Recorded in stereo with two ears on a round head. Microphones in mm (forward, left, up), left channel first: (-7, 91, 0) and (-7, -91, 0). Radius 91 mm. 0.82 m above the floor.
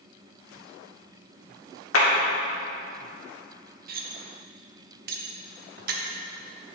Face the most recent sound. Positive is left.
turn(degrees=-45)  # may be behind; listen again after turning